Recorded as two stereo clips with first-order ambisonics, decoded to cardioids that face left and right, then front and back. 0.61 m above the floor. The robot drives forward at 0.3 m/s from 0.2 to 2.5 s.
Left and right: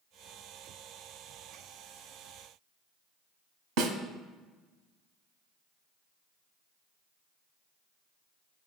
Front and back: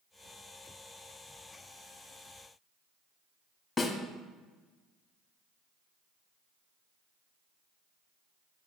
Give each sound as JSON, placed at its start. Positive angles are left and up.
{"t": 3.8, "sound": "a snare drum", "azimuth_deg": -85, "distance_m": 0.9}